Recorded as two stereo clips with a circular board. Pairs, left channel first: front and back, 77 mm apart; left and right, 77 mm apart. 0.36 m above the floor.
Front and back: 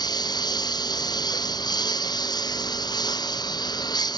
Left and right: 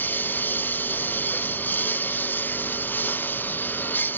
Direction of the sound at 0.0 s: 25° left.